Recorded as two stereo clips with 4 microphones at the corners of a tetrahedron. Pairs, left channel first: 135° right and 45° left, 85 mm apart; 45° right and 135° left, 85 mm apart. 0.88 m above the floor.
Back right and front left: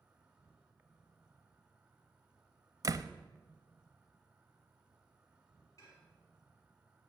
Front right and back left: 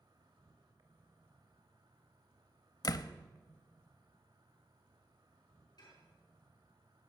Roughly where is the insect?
Behind left.